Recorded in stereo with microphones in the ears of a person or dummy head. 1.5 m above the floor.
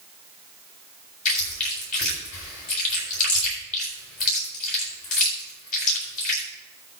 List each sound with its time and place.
1.2 s chewing: 45° left (ahead or behind), 7.5 m